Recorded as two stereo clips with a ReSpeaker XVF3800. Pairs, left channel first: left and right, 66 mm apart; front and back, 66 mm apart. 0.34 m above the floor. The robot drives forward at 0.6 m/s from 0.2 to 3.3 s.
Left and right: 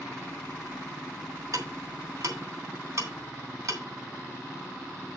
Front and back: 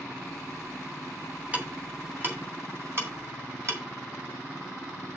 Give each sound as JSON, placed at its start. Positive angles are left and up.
{"t": 1.5, "sound": "ticking", "azimuth_deg": -115, "distance_m": 2.5}